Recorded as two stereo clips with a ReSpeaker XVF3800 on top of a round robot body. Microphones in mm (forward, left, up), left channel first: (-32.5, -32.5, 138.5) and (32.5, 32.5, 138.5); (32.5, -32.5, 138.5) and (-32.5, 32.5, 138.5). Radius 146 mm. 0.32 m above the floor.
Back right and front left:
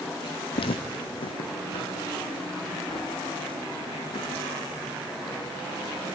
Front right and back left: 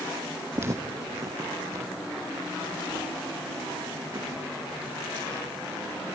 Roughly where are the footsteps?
Behind.